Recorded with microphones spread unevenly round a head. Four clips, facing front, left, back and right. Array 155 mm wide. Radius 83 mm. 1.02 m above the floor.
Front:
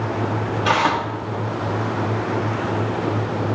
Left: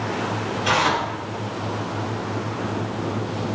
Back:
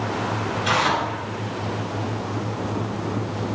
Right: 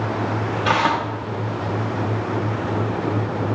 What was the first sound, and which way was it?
Tearing paper, 40° right.